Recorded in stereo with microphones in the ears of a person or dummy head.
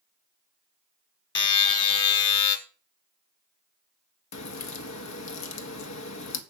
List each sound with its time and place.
1.4 s a buzzer: 25° left (ahead or behind), 1.6 m
4.3 s a crack: 80° left, 1.5 m